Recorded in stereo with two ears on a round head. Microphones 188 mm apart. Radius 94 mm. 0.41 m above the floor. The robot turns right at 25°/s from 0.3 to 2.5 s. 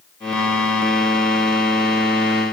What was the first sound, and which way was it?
Only background noise.